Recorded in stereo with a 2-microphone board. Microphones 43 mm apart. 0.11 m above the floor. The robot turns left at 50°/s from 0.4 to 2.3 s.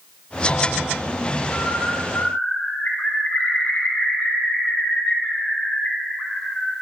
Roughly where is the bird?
Left.